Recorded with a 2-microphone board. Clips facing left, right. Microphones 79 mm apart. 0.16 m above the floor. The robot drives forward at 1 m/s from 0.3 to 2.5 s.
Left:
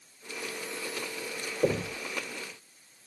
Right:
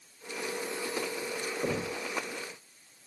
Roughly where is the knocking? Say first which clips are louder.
Left 6 dB; left.